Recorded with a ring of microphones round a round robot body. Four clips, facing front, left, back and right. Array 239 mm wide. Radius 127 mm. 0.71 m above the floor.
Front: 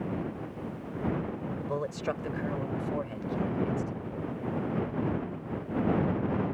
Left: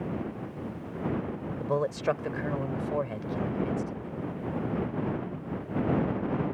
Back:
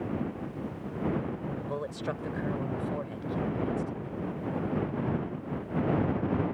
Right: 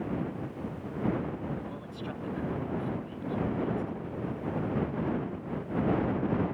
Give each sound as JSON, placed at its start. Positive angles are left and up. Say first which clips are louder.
{"t": 1.6, "sound": "a man speaking", "louder": "left 11 dB, front 5 dB", "azimuth_deg": 85}